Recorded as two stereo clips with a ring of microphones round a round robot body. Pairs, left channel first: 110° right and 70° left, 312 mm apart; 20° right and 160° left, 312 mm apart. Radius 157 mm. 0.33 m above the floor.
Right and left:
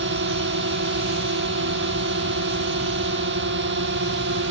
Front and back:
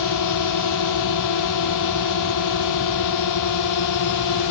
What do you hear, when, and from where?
0.0 s a drone: 10° left